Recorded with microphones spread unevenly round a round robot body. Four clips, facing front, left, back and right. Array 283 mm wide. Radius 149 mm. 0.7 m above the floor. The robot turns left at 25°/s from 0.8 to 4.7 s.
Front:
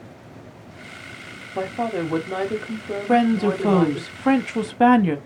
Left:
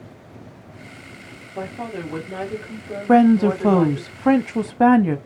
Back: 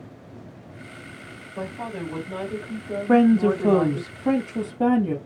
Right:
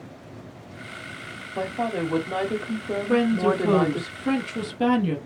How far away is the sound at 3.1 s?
About 1.0 m.